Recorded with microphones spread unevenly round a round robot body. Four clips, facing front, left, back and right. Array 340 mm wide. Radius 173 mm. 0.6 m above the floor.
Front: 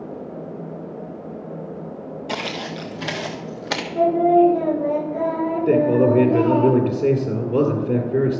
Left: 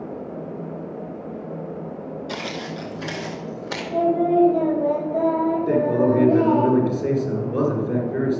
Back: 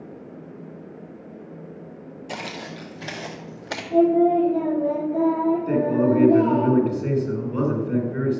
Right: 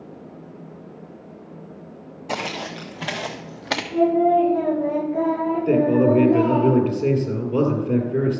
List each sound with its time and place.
2.3 s footsteps: 45° right, 1.3 m; by 3.8 s 60° right, 2 m
3.9 s singing: 160° left, 3.5 m
5.7 s a man speaking: 15° right, 2.5 m